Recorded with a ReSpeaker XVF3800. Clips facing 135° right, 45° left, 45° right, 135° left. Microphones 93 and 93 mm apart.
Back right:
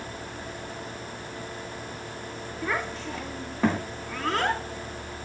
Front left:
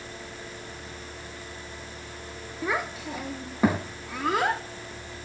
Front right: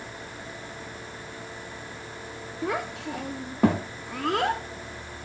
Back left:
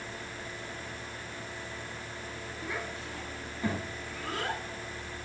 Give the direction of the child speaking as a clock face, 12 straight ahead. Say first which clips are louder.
Front left 1 dB, front right 10 dB; 1 o'clock.